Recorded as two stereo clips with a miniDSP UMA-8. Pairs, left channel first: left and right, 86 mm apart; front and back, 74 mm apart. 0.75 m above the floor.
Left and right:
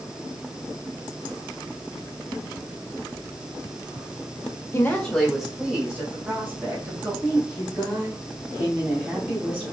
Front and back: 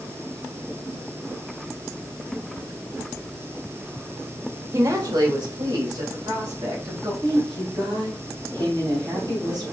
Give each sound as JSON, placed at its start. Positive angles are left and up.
{"t": 4.7, "sound": "a woman speaking", "azimuth_deg": 140, "distance_m": 1.0}
{"t": 7.2, "sound": "a woman speaking", "azimuth_deg": -150, "distance_m": 3.0}